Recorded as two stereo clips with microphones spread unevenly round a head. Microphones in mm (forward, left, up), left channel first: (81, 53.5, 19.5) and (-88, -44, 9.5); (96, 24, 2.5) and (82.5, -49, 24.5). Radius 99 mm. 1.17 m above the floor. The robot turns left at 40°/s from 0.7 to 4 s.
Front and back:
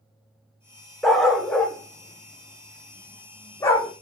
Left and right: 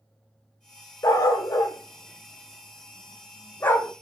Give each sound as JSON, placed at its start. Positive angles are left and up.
{"t": 1.0, "sound": "a dog barking", "azimuth_deg": 110, "distance_m": 0.6}